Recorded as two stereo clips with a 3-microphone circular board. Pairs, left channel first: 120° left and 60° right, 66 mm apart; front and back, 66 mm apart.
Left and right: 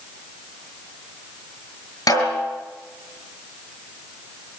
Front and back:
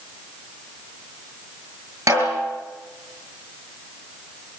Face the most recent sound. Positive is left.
turn(degrees=140)